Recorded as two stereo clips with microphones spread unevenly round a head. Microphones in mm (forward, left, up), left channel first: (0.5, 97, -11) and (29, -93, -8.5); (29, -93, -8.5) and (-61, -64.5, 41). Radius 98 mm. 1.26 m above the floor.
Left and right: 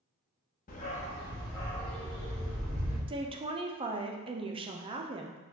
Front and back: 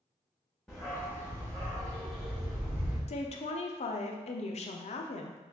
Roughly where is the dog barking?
Left.